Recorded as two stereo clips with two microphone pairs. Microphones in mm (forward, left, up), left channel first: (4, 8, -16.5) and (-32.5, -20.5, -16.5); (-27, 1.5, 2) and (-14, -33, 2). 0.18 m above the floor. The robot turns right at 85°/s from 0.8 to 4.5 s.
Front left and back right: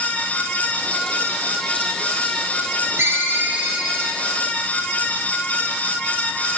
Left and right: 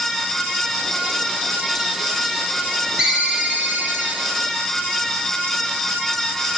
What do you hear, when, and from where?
3.0 s a ringtone: 135° right, 0.7 m; by 4.3 s 20° right, 0.7 m